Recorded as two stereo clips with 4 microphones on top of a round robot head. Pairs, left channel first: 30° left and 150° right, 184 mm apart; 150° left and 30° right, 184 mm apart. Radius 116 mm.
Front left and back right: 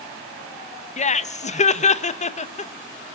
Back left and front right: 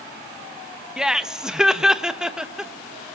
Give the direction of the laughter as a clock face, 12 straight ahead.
10 o'clock.